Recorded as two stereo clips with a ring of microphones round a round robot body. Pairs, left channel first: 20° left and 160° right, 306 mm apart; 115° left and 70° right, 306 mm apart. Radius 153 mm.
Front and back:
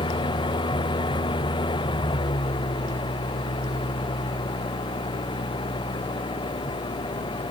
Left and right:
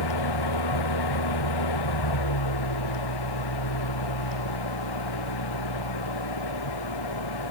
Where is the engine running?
100° left.